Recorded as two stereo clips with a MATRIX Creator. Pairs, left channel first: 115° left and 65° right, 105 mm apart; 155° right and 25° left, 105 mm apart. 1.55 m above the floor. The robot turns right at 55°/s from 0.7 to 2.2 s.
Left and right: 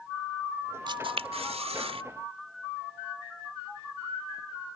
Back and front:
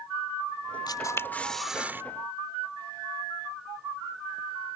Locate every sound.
0.9 s a camera shutter: 110° right; by 2.0 s 45° right